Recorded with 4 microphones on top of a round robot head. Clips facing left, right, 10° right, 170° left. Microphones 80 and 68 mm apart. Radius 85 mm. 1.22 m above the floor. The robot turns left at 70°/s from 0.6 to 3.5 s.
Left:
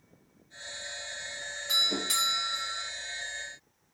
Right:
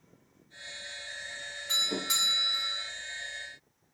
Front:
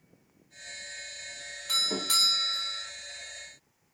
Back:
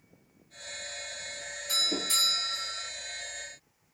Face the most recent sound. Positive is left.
turn(degrees=-115)